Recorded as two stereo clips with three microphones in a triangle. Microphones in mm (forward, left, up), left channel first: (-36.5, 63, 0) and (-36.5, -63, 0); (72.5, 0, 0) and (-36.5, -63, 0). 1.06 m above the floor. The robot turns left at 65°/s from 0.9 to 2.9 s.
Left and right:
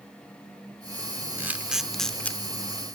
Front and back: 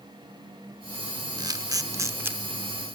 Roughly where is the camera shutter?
Behind right.